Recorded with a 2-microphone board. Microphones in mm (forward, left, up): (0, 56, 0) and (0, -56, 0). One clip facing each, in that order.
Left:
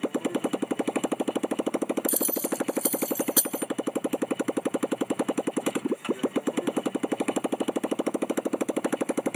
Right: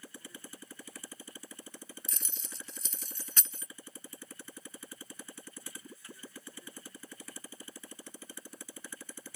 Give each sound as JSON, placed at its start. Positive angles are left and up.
{"t": 0.0, "sound": "a motorcycle", "side_deg": 65}
{"t": 2.1, "sound": "keys jangling", "side_deg": 10}